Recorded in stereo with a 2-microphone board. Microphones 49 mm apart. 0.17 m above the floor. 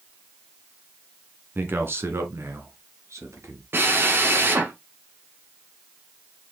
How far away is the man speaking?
About 1.8 m.